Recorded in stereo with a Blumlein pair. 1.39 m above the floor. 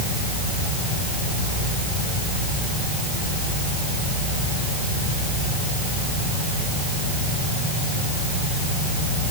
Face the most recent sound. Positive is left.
No sound to turn to.